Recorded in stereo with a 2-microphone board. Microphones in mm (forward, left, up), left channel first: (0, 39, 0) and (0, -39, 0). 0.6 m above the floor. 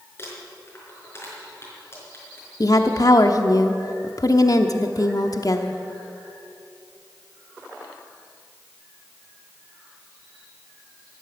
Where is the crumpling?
30° left (ahead or behind), 5 m.